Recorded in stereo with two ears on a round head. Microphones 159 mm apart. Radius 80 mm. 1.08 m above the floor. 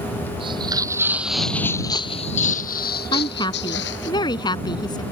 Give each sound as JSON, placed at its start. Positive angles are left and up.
{"t": 0.4, "sound": "footsteps", "side_deg": -30}
{"t": 3.1, "sound": "a woman speaking", "side_deg": 25}